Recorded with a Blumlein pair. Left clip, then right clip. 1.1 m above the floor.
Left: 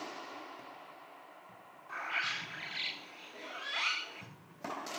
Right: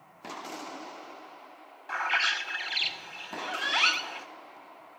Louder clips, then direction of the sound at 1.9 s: Right 9 dB; 45° right.